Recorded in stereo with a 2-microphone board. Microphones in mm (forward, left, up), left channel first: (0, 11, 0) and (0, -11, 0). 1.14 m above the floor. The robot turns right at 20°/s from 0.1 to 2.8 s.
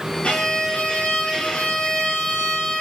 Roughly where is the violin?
Left.